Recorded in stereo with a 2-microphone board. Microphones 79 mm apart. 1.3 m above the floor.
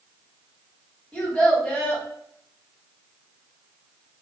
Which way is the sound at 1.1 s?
10° left (ahead or behind).